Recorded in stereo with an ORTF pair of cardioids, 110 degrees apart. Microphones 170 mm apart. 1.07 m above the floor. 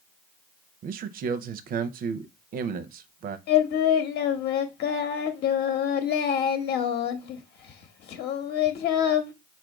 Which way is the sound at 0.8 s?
55° right.